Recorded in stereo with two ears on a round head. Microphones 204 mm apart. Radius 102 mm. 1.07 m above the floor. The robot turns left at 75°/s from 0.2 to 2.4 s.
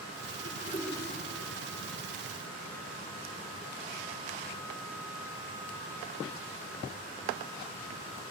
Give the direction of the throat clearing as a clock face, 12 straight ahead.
11 o'clock.